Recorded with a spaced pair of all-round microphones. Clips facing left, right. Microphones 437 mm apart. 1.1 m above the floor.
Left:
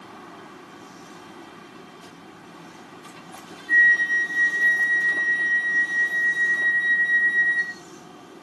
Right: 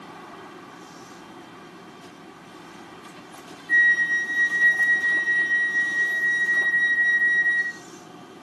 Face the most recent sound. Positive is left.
turn(degrees=-15)  # may be behind; listen again after turning